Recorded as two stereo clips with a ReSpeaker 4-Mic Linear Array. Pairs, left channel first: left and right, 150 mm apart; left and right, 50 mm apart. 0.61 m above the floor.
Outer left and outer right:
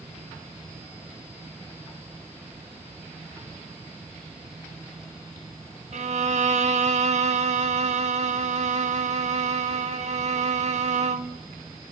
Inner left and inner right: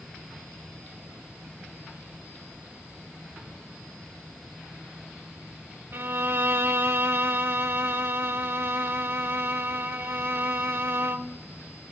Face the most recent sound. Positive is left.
turn(degrees=-55)  # may be behind; listen again after turning